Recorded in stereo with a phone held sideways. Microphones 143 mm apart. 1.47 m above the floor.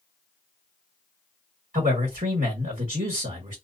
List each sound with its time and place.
1.7 s a man speaking: 75° right (ahead or behind), 1.5 m